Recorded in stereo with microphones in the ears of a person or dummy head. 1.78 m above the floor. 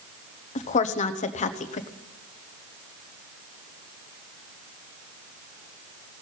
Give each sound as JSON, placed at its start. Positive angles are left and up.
{"t": 0.6, "sound": "a woman speaking", "side_deg": 40, "distance_m": 1.0}